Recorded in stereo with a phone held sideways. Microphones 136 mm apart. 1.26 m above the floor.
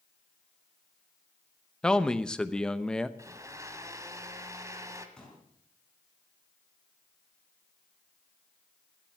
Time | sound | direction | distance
1.8 | a man speaking | 5° left (ahead or behind) | 0.9 m
3.2 | a blender | 25° right (ahead or behind) | 1.3 m
5.2 | a pop | 5° left (ahead or behind) | 5.5 m